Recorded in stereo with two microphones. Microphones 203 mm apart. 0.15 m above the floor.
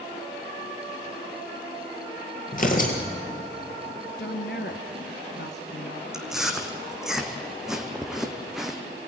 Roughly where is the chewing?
Centre.